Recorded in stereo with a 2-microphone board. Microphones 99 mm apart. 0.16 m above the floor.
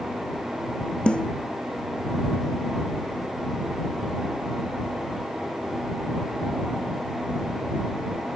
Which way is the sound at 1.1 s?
10° left (ahead or behind).